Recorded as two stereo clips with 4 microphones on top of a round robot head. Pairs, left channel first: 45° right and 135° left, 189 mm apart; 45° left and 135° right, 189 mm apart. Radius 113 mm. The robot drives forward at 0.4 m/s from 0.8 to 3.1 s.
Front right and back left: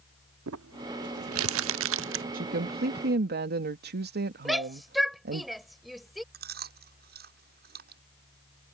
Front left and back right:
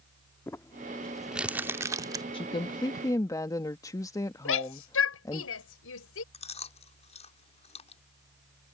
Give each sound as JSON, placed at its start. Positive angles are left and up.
{"t": 0.5, "sound": "crumpling", "azimuth_deg": 120}
{"t": 2.3, "sound": "a woman speaking", "azimuth_deg": 105}
{"t": 4.5, "sound": "a shout", "azimuth_deg": 45}
{"t": 6.3, "sound": "chewing", "azimuth_deg": 100}